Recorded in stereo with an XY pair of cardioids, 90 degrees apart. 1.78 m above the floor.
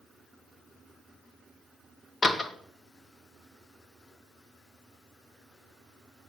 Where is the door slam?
35° left, 2 m.